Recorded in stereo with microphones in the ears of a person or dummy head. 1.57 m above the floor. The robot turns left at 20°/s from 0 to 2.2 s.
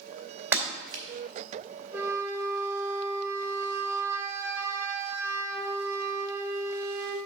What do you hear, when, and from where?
0.5 s breaking glass: 15° right (ahead or behind), 2.5 m; by 1.0 s 25° right (ahead or behind), 2.5 m
1.9 s a flute: 10° right (ahead or behind), 1.1 m; by 7.2 s 20° right (ahead or behind), 1.1 m